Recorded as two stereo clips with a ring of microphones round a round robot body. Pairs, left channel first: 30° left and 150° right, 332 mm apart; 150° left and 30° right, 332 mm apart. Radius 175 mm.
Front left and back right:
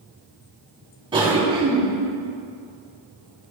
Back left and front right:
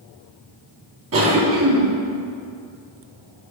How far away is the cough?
About 4 m.